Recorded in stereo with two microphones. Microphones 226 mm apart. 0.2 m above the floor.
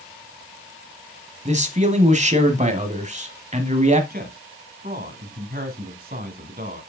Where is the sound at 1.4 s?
35° right (ahead or behind), 1.2 m.